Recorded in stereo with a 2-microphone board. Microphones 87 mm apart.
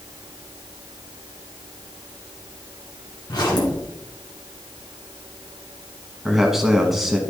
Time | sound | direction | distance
3.3 | a zipper | 50° left (ahead or behind) | 2.5 m
6.2 | a man speaking | 5° right (ahead or behind) | 1.2 m